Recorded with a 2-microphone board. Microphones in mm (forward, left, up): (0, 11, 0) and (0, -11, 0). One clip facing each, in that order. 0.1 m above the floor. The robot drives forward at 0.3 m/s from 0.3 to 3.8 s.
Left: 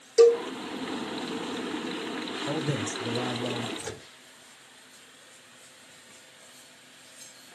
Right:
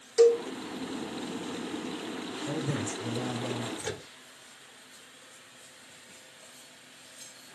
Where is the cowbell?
45° left (ahead or behind), 2 m.